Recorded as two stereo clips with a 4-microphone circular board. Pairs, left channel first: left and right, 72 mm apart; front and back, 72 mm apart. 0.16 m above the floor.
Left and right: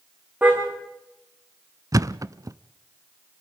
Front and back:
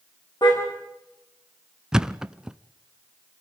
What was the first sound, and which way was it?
A car horn, 20° right.